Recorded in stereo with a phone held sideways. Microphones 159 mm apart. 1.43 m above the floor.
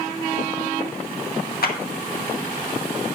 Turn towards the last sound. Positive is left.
turn(degrees=70)  # may be behind; listen again after turning